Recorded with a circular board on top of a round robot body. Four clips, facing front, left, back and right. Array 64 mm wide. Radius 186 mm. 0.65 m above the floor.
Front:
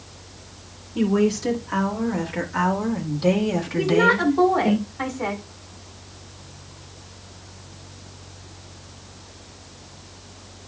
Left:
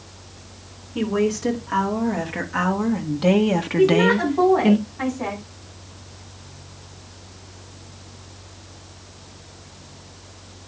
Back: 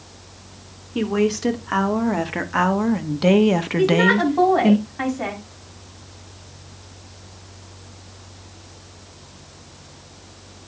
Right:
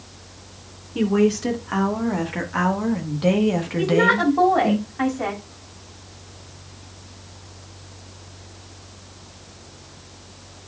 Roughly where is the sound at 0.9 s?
Behind.